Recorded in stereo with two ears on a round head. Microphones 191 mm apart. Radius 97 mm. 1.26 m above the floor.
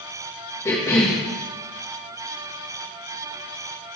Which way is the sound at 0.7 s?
15° left (ahead or behind).